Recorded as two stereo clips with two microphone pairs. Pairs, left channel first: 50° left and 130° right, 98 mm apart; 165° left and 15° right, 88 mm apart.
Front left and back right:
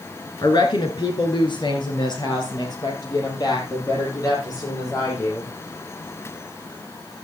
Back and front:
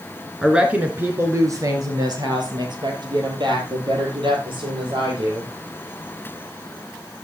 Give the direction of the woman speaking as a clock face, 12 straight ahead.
10 o'clock.